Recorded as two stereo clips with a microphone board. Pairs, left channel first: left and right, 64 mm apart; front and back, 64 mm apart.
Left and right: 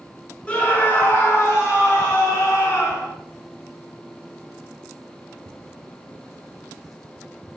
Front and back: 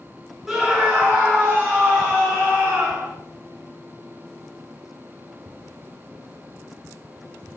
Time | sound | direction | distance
0.5 | a scream | 120° left | 0.9 m